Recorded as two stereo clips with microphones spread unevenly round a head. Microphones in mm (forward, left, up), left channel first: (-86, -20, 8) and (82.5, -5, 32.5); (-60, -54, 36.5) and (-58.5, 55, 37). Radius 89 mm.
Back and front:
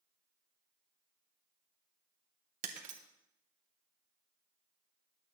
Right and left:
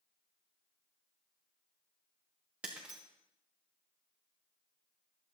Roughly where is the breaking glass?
Ahead.